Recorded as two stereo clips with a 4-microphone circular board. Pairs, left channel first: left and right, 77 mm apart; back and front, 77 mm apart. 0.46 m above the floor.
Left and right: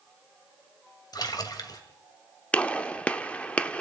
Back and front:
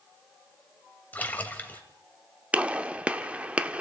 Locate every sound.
1.1 s a splash: 115° left, 2.5 m
2.5 s a gunshot: 45° left, 1.1 m